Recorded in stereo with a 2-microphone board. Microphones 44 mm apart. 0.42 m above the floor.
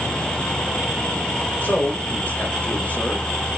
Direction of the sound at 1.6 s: 40° left (ahead or behind).